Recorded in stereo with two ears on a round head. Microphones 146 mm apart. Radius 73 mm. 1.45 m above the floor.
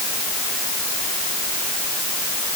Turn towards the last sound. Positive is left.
No sound to turn to.